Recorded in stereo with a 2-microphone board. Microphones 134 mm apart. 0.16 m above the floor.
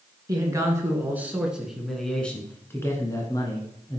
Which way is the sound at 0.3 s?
25° right (ahead or behind).